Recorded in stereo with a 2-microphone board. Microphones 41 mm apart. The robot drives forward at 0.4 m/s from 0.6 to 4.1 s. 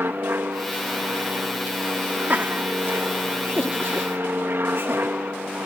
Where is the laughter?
55° right (ahead or behind); by 5.2 s 70° right (ahead or behind).